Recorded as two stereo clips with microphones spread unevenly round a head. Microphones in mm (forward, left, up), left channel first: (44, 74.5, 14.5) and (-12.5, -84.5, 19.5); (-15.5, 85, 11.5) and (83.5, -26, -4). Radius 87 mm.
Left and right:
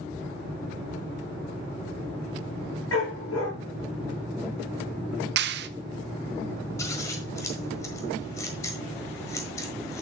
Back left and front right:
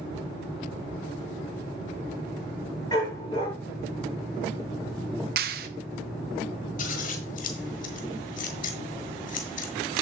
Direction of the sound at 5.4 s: 85° right.